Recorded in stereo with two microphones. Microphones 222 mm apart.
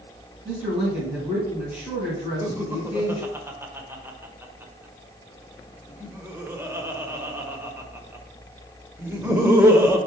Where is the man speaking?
5° right (ahead or behind), 3 m.